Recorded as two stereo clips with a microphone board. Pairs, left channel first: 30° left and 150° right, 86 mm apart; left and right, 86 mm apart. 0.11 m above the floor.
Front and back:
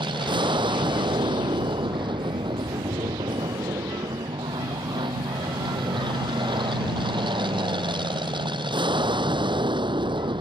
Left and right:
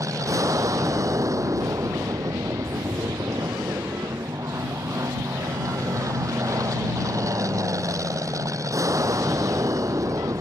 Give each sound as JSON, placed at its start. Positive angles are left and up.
{"t": 0.0, "sound": "an aircraft", "azimuth_deg": -135}